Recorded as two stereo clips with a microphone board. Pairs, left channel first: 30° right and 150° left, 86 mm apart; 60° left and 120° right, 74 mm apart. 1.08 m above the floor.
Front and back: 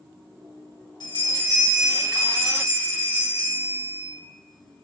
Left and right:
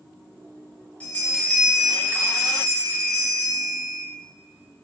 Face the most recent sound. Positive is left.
turn(degrees=-10)